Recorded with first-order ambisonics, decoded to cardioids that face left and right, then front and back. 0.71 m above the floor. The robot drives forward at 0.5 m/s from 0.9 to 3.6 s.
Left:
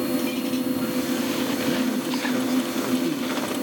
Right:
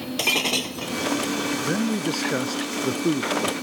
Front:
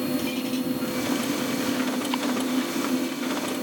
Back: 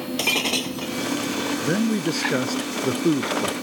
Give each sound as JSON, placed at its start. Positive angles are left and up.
{"t": 0.2, "sound": "breaking glass", "azimuth_deg": -135}
{"t": 1.6, "sound": "a man speaking", "azimuth_deg": -155}